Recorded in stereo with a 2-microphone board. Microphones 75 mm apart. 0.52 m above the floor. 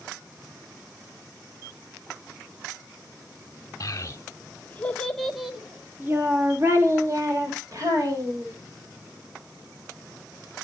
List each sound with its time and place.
3.8 s a child speaking: 50° left (ahead or behind), 1.1 m; by 8.5 s 55° right (ahead or behind), 2 m